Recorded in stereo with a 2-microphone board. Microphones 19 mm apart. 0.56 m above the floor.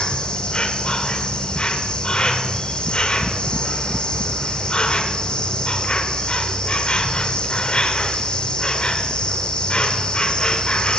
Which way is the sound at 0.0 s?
60° left (ahead or behind).